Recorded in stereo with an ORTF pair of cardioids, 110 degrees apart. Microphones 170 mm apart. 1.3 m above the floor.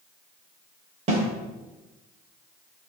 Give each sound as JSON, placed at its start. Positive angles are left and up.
{"t": 1.1, "sound": "a snare drum", "azimuth_deg": -40, "distance_m": 3.0}